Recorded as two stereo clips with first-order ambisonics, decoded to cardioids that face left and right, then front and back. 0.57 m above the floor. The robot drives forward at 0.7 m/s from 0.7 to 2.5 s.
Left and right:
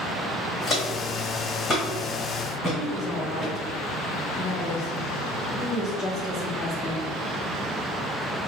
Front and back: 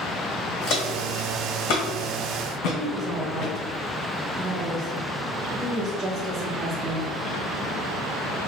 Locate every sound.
0.7 s footsteps: 25° left, 1.6 m; by 3.5 s 10° right, 3 m
2.8 s a woman speaking: 150° left, 1.1 m